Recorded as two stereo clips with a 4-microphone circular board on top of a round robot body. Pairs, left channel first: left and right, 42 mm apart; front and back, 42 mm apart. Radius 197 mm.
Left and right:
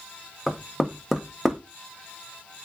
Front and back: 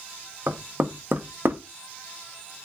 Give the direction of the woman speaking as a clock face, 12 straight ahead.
No woman speaking in this recording.